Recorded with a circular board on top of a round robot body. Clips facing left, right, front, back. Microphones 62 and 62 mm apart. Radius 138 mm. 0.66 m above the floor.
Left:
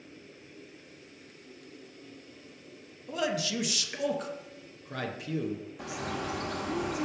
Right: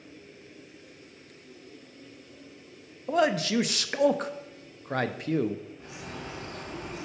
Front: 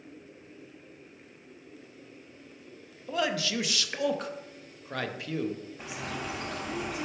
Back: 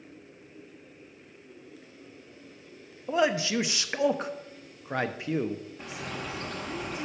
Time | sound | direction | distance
3.1 | a man speaking | 120° right | 0.8 m
5.8 | a bird | 85° left | 0.9 m